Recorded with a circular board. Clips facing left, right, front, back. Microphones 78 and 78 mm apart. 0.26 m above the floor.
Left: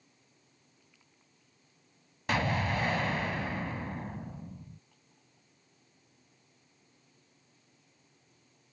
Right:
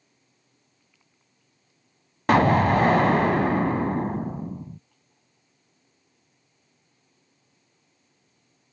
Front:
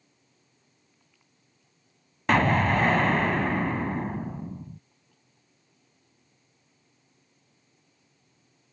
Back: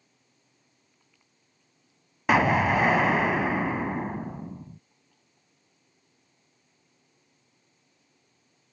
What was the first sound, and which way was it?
An explosion, 100° right.